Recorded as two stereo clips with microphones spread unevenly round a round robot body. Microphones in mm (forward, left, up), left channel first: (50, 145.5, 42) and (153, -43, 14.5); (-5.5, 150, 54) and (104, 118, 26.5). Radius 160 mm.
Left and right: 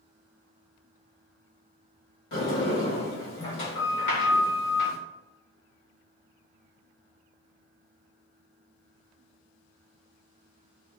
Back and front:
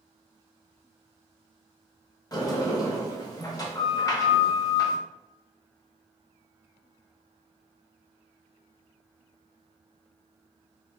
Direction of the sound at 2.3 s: 100° left.